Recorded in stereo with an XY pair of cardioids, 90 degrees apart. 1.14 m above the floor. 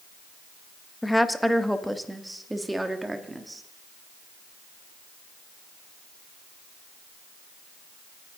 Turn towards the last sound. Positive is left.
turn(degrees=-20)